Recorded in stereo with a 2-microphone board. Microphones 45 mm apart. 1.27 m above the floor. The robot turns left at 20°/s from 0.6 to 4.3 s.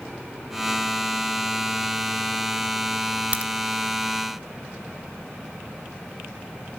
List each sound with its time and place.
3.3 s a crack: 30° right (ahead or behind), 0.6 m